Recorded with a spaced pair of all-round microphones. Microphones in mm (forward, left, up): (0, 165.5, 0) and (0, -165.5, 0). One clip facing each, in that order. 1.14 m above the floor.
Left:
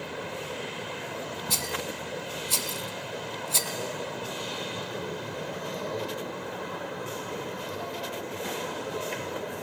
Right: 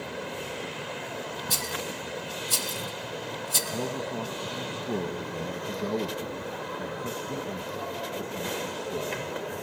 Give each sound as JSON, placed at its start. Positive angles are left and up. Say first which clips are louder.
{"t": 1.5, "sound": "a rattle", "louder": "even", "side_deg": -20, "distance_m": 1.1}
{"t": 3.7, "sound": "a man speaking", "louder": "right 6 dB", "side_deg": -80, "distance_m": 1.1}